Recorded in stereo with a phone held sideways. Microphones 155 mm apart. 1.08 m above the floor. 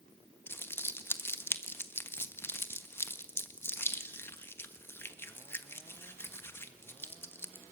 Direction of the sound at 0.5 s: 15° left (ahead or behind).